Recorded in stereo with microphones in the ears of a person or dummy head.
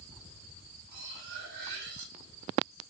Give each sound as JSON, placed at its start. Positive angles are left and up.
{"t": 0.9, "sound": "cutlery clinking", "side_deg": -65, "distance_m": 1.5}